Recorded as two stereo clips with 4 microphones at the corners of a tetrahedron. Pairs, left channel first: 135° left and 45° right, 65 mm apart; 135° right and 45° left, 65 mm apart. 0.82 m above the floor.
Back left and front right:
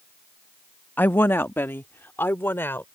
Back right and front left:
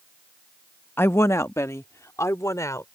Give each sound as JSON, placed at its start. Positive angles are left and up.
{"t": 1.0, "sound": "a woman speaking", "azimuth_deg": -175}